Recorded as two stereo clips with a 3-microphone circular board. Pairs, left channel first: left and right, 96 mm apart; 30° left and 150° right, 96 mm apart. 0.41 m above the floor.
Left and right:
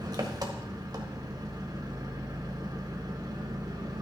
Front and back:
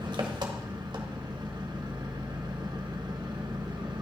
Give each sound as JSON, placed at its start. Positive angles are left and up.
{"t": 0.0, "sound": "an engine running", "azimuth_deg": -125, "distance_m": 1.4}